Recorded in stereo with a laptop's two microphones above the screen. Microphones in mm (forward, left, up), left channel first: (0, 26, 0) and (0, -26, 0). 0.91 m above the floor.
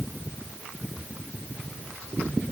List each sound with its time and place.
Only background noise.